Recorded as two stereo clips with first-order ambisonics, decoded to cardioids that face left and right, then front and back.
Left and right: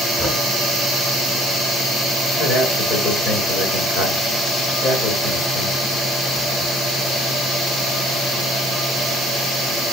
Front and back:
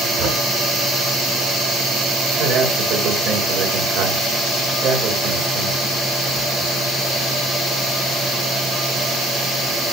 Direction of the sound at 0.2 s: 160° left.